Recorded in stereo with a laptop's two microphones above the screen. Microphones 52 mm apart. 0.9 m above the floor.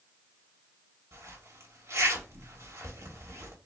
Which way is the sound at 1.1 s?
70° right (ahead or behind).